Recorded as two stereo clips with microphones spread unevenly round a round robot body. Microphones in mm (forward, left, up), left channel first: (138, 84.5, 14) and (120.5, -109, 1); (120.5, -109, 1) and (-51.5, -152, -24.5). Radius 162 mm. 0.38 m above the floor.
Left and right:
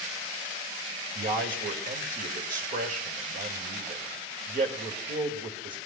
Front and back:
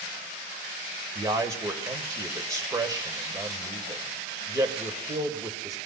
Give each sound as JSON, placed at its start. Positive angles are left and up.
{"t": 1.1, "sound": "a man speaking", "azimuth_deg": -105, "distance_m": 1.8}